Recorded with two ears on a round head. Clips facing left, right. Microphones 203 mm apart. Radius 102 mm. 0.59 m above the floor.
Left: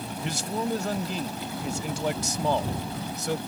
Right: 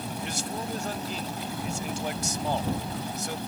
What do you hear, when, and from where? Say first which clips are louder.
0.2 s a man speaking: left 7 dB; 75° left (ahead or behind)